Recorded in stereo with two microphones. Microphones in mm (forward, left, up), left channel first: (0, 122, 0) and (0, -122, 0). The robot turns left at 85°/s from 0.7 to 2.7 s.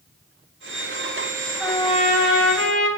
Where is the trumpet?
Straight behind, 1.3 m; by 2.9 s 85° left, 1.3 m.